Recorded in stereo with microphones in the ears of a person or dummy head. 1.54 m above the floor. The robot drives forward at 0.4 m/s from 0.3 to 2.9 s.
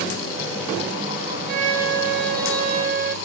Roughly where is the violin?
Right.